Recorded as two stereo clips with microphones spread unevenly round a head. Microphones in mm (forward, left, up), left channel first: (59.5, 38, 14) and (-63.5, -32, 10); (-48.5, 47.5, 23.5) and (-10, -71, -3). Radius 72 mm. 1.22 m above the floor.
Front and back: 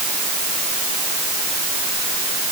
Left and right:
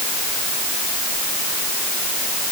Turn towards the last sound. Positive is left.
No sound to turn to.